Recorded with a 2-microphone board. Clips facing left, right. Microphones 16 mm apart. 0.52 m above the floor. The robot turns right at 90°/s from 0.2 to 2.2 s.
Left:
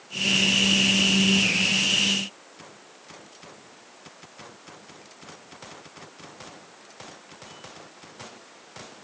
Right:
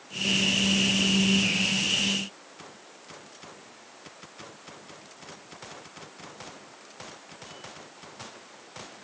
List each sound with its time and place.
Only background noise.